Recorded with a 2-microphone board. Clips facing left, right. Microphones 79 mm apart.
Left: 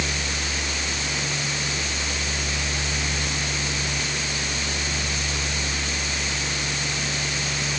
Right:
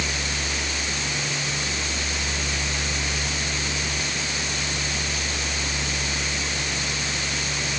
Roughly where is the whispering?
I don't hear whispering.